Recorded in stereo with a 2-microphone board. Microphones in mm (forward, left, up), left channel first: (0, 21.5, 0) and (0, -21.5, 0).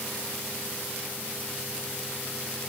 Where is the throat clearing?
No throat clearing in this recording.